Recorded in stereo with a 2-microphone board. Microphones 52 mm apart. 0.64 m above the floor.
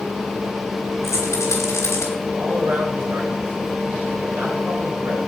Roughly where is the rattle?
Left.